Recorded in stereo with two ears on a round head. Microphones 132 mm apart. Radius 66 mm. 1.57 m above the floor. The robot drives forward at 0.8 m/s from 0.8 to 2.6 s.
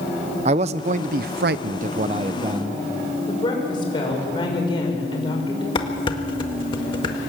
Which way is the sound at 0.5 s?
45° right (ahead or behind).